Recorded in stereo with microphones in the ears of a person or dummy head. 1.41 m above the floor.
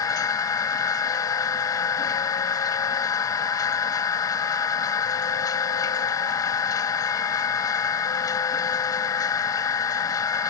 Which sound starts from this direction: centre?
A machine running, at 0.0 s.